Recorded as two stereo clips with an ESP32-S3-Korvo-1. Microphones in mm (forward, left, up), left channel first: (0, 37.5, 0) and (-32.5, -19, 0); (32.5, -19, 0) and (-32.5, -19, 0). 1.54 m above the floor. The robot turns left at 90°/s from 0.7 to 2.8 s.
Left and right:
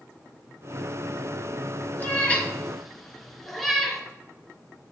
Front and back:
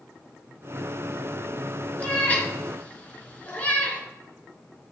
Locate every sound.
2.0 s a cat meowing: 45° left, 1.6 m; by 4.0 s 30° right, 1.6 m